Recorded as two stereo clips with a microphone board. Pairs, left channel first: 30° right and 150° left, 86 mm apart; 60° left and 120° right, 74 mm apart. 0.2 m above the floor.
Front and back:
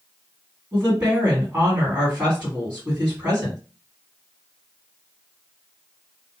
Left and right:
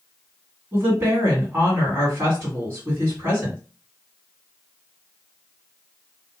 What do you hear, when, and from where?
0.7 s a woman speaking: 145° right, 1.9 m